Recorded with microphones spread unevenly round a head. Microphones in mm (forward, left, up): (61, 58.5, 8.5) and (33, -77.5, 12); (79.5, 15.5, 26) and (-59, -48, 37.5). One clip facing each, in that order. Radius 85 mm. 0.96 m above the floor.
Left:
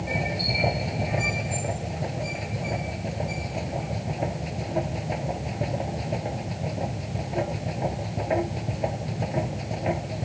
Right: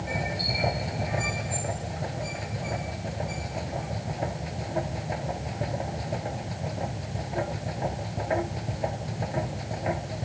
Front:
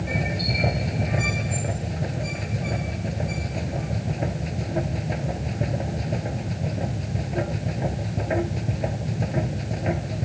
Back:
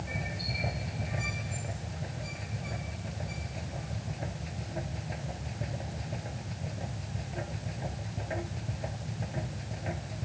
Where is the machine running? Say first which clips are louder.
Left 2 dB, front 11 dB; 5° left.